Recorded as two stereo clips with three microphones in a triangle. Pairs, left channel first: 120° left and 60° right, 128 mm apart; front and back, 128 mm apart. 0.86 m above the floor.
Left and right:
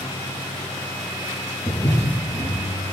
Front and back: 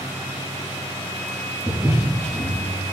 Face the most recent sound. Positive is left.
turn(degrees=95)